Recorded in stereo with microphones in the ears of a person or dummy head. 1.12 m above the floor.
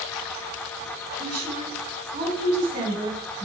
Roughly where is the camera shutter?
No camera shutter in this recording.